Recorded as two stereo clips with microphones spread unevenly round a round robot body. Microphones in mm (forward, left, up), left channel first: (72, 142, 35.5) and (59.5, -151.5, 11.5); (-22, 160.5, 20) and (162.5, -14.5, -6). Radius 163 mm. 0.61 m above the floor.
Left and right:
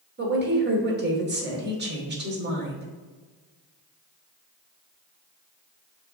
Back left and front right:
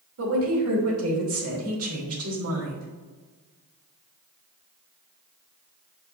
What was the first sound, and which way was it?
A woman speaking, 45° right.